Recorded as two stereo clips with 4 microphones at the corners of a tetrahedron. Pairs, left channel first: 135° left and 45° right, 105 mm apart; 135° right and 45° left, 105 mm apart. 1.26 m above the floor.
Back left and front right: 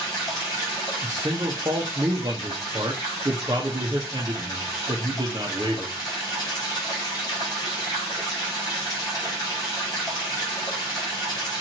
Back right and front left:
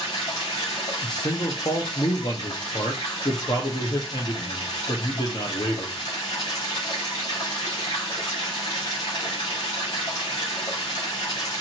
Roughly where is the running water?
Behind.